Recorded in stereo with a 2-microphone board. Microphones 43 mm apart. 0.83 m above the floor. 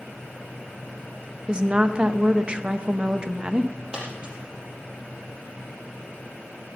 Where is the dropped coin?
25° right (ahead or behind), 4.5 m.